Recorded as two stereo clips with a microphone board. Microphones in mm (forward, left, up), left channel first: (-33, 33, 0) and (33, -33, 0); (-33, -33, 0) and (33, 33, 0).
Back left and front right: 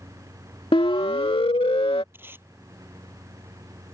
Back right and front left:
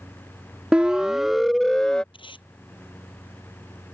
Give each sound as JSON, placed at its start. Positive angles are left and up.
{"t": 0.7, "sound": "a siren", "azimuth_deg": 125}
{"t": 2.1, "sound": "tape being pulled", "azimuth_deg": -110}